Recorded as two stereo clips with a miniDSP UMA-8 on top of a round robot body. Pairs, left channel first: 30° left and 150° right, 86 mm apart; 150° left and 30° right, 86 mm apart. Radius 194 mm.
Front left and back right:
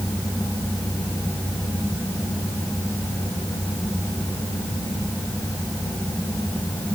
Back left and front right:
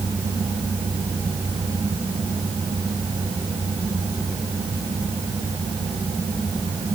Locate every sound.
Only background noise.